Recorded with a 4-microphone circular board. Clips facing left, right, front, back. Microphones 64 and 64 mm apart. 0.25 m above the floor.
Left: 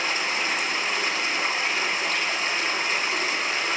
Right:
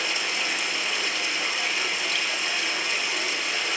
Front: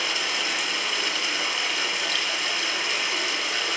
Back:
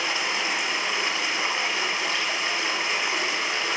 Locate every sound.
0.0 s running water: 125° left, 1.0 m